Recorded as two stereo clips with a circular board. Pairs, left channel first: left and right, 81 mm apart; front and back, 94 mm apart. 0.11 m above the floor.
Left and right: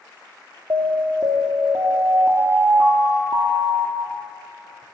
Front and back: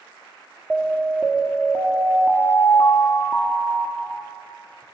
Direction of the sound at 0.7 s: 110° right.